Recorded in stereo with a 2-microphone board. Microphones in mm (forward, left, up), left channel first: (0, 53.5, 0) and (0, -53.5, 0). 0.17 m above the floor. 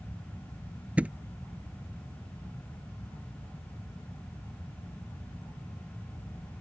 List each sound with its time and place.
1.0 s a thud: 15° right (ahead or behind)